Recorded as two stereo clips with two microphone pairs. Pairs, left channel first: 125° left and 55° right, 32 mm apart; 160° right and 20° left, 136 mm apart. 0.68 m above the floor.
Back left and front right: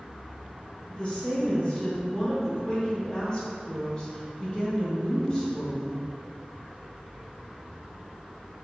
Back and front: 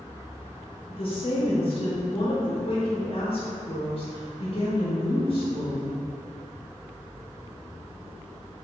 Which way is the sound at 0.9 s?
Straight behind.